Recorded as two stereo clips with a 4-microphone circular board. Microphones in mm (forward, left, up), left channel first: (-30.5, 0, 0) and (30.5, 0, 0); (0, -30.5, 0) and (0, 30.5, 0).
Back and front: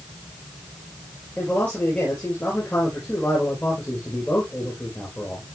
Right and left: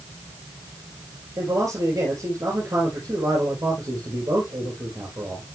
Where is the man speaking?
110° left, 4.5 m.